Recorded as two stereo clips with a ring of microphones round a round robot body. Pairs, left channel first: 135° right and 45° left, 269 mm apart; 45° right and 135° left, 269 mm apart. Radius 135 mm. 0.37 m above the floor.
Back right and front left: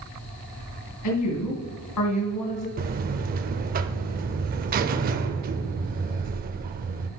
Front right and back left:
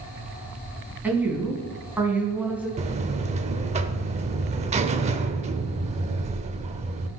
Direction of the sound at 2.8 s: 85° left.